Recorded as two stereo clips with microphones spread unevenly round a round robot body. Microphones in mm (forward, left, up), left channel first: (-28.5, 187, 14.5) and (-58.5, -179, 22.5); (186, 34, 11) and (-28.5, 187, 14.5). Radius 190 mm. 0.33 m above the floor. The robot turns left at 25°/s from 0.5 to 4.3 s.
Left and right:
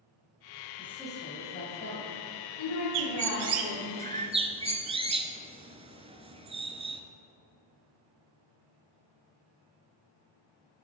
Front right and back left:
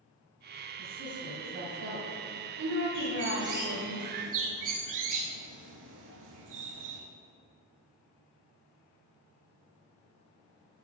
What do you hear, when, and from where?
0.8 s a woman speaking: 170° left, 2.5 m; by 3.9 s 95° left, 2.5 m
2.9 s a bird: 135° right, 1.1 m; by 7.0 s 170° right, 1.1 m